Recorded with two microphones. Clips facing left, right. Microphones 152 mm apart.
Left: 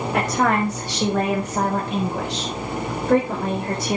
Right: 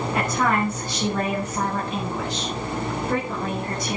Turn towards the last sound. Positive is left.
turn(degrees=55)  # may be behind; listen again after turning